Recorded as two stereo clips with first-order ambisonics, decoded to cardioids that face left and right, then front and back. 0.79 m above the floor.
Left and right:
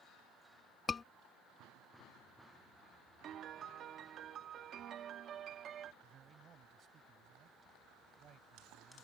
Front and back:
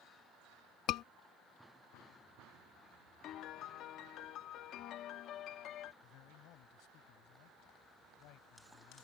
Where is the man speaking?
30° right.